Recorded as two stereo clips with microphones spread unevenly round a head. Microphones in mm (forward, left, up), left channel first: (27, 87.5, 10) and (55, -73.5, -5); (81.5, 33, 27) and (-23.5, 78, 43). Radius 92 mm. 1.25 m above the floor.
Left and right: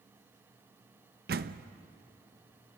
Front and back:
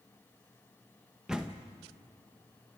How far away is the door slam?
About 0.6 m.